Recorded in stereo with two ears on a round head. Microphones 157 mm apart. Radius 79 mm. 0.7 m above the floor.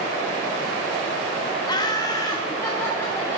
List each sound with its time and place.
1.7 s laughter: 25° left (ahead or behind), 0.7 m; by 3.4 s 15° left (ahead or behind), 1.5 m